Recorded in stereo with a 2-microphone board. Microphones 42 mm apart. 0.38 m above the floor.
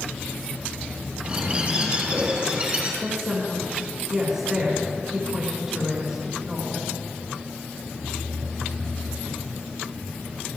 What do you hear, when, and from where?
1.2 s a bird: 35° right (ahead or behind), 3.5 m
3.0 s a woman speaking: 15° right (ahead or behind), 3 m